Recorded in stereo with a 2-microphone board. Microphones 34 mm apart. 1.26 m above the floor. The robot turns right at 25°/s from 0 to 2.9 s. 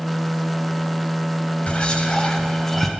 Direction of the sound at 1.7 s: 35° left (ahead or behind).